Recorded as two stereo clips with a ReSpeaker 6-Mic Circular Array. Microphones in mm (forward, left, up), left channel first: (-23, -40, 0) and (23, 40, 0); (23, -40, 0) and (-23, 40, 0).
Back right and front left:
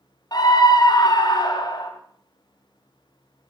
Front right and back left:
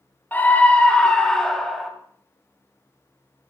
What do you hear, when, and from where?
0.3 s a scream: 125° right, 1.8 m; by 1.9 s 150° right, 2 m